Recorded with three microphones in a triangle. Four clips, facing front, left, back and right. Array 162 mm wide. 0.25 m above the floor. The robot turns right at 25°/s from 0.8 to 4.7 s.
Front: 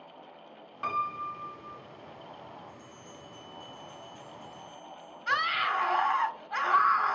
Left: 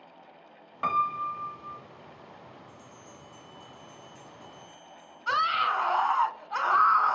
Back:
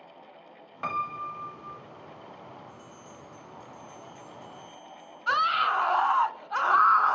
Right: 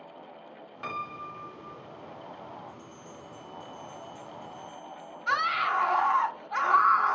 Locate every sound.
0.8 s a piano: 115° left, 1.3 m; by 1.8 s 140° left, 1.3 m
2.7 s a bell: 135° left, 3.5 m; by 6.0 s 175° right, 3.5 m
5.3 s a scream: 170° left, 1.1 m